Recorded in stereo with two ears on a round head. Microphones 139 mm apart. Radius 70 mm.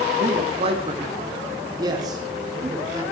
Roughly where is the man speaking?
Right.